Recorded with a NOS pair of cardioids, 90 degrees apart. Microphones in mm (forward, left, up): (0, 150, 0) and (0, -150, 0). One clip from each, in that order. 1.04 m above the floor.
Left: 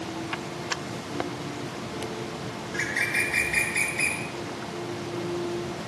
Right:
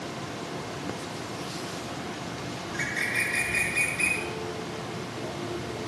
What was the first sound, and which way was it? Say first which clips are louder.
A bird: left 2 dB; 40° left.